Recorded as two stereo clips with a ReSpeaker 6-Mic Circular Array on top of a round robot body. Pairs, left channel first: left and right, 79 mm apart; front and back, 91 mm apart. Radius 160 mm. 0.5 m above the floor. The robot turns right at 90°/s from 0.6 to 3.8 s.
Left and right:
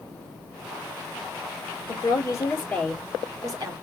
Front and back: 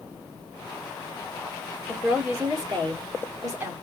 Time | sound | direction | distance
1.9 | a woman speaking | 85° left | 2 m